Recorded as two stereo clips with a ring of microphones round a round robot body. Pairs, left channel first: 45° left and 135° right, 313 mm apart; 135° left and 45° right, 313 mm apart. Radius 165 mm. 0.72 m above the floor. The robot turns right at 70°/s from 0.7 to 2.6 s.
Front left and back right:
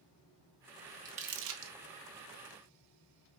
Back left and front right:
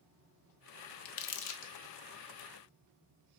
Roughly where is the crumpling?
Behind left.